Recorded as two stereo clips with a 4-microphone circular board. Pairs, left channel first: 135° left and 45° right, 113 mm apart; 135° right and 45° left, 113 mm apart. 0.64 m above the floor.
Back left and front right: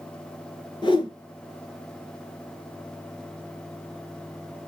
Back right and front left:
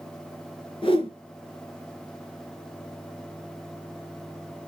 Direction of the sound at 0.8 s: Straight behind.